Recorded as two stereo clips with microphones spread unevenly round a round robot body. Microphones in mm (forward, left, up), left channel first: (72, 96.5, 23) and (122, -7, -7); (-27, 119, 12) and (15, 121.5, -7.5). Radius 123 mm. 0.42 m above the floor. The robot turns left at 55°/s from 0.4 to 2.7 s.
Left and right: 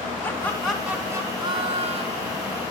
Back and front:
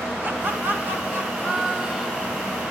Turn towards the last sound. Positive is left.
turn(degrees=-90)